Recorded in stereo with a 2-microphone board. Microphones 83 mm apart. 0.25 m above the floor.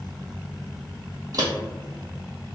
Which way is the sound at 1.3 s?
45° right (ahead or behind).